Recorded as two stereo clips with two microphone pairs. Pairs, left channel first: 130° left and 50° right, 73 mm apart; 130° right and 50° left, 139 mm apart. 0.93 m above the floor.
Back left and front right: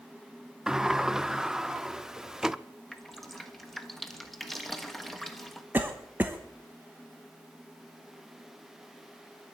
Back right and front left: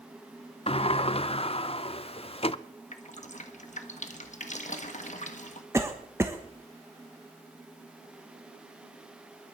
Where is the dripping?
140° right, 1.4 m.